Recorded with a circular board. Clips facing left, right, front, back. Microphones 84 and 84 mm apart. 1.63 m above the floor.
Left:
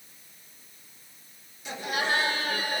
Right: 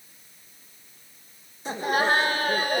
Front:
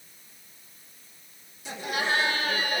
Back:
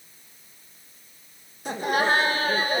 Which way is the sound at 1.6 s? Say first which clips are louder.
Right 6 dB, back 6 dB; 140° right.